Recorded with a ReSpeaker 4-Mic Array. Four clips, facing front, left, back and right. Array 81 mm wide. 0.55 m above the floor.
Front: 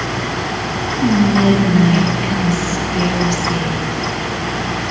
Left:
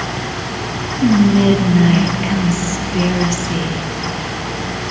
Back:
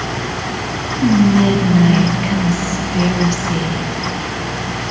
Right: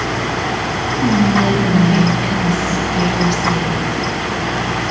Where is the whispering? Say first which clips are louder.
Left 3 dB, back 1 dB; 90° left, 0.6 m.